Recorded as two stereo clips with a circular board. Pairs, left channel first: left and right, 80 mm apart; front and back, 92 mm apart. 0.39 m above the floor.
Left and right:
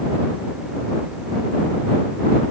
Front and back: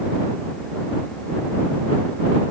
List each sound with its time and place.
Only background noise.